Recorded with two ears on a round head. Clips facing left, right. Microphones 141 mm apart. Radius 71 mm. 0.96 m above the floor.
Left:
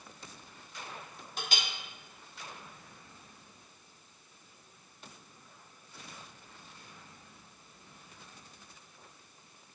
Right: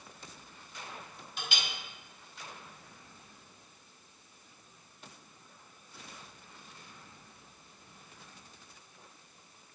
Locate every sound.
1.4 s a clink: 35° left (ahead or behind), 1.3 m